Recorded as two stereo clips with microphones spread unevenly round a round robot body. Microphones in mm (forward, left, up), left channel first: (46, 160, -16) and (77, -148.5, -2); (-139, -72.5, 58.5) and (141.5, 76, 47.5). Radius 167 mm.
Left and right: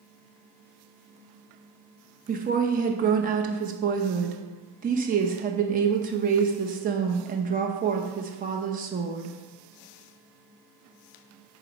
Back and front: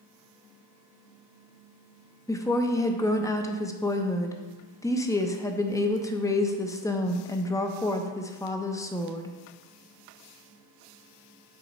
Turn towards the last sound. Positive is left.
turn(degrees=-80)